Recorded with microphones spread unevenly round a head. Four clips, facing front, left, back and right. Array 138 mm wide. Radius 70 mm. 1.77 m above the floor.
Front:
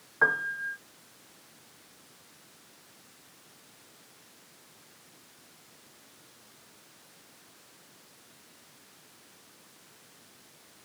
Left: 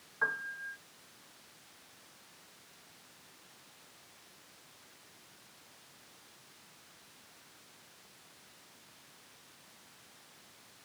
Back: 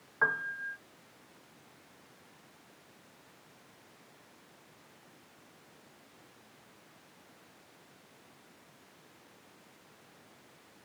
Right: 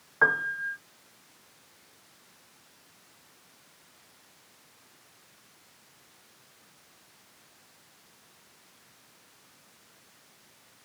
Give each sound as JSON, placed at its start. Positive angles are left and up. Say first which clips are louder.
{"t": 0.2, "sound": "a piano", "louder": "right 10 dB, front 5 dB", "azimuth_deg": -60}